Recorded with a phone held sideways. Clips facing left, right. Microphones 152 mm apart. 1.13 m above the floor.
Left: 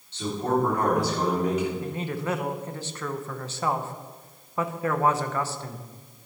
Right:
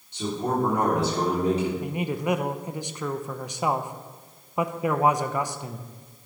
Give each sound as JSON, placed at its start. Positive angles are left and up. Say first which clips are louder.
{"t": 0.1, "sound": "a man speaking", "louder": "left 1 dB", "side_deg": -15, "distance_m": 3.0}
{"t": 1.8, "sound": "a man speaking", "louder": "right 3 dB", "side_deg": -15, "distance_m": 0.6}